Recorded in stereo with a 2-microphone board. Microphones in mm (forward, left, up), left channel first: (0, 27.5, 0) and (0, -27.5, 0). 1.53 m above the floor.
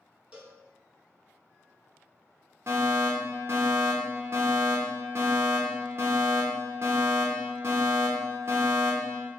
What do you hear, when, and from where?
0.3 s a cowbell: 15° right (ahead or behind), 0.6 m
2.7 s a fire alarm: 50° right (ahead or behind), 0.8 m